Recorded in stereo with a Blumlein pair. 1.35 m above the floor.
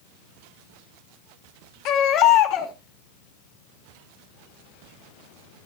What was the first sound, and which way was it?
A baby crying, 35° left.